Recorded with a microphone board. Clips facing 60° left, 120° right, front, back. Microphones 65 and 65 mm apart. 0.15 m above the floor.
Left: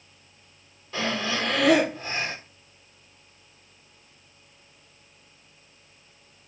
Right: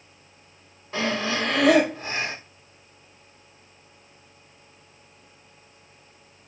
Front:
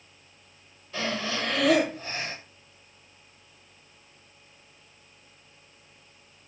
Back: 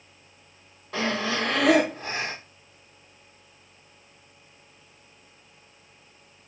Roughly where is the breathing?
Behind.